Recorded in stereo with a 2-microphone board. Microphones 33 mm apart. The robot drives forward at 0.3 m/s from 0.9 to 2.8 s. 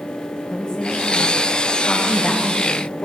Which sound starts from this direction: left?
A woman speaking, at 0.5 s.